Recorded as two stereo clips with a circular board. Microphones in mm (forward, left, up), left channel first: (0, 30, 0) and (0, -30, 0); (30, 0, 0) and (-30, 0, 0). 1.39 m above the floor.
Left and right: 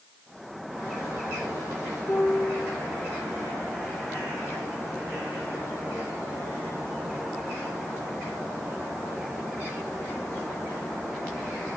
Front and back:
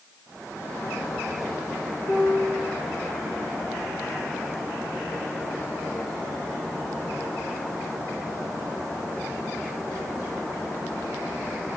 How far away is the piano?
About 10 m.